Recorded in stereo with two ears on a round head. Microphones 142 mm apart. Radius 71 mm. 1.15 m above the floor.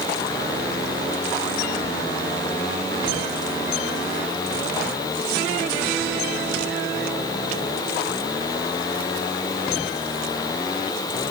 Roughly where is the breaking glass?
I don't hear breaking glass.